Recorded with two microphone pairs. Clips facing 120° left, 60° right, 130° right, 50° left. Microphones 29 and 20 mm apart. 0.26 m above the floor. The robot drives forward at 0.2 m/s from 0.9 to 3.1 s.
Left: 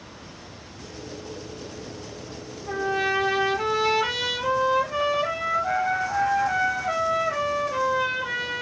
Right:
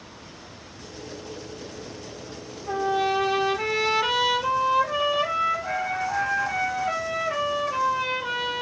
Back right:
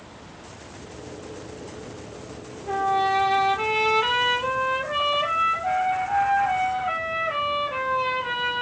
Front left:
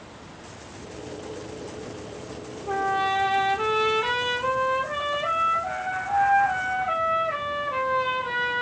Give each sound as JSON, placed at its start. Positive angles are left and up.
{"t": 2.7, "sound": "a trumpet", "azimuth_deg": -130, "distance_m": 6.5}